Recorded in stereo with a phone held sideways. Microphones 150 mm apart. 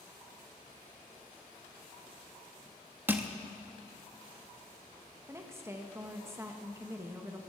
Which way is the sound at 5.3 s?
20° right (ahead or behind).